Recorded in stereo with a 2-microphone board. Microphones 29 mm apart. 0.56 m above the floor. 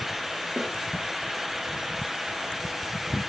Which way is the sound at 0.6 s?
35° right (ahead or behind).